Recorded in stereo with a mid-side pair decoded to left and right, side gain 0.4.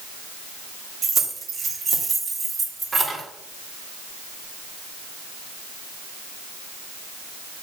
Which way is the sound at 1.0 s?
60° right.